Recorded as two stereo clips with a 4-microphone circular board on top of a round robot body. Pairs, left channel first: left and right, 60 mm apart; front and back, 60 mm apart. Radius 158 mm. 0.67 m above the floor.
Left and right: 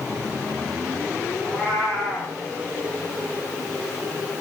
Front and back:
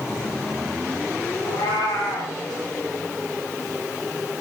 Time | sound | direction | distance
1.4 | a cat meowing | 20° left | 9.5 m